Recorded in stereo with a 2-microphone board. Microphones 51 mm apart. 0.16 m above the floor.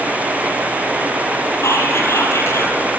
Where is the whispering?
65° left (ahead or behind), 4.5 m.